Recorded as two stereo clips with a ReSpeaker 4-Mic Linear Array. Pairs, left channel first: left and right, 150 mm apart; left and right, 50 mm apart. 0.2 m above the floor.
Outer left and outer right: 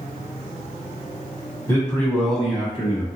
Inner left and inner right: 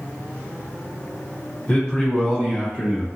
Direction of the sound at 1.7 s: 20° left (ahead or behind).